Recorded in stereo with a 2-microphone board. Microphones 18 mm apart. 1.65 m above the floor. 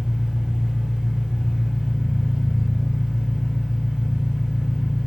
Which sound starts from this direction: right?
An engine running, at 0.0 s.